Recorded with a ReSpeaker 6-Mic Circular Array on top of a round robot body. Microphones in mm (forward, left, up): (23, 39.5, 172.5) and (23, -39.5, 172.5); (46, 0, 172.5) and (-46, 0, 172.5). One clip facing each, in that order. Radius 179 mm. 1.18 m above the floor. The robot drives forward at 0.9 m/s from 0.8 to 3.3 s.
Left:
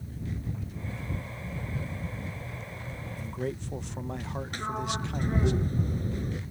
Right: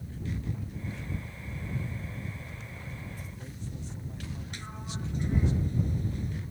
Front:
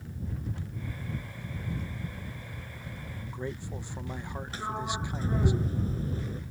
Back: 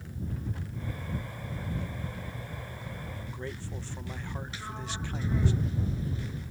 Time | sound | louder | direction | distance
3.2 | a man speaking | left 10 dB, front 6 dB | 70° left | ?
4.5 | a sliding door | left 9 dB, front 6 dB | 50° left | ?